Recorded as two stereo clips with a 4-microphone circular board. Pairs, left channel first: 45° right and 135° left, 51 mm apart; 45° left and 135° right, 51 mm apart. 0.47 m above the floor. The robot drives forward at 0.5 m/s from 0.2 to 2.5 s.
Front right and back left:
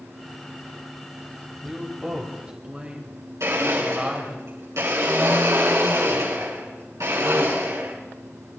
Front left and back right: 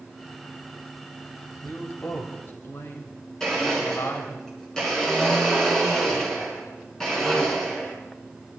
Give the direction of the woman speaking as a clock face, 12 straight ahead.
10 o'clock.